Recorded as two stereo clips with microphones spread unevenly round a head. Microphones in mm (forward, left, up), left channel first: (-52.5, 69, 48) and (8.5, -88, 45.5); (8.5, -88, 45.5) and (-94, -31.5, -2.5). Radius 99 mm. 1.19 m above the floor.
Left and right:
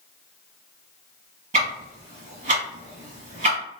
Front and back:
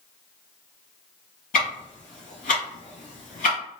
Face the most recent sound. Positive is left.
turn(degrees=-25)